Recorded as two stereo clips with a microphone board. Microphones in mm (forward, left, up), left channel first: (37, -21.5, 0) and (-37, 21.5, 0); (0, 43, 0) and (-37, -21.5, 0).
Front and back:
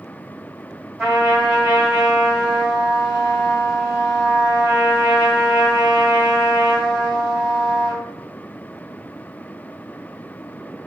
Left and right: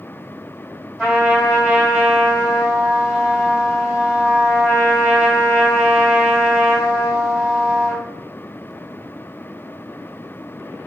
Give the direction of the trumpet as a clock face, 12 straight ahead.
6 o'clock.